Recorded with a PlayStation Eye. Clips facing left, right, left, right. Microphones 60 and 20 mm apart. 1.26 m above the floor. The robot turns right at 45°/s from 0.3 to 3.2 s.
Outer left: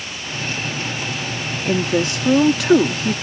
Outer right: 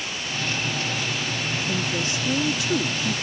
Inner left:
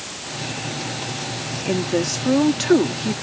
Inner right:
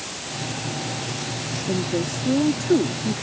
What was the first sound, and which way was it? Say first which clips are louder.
A woman speaking: outer left 12 dB, inner left 4 dB; 65° left.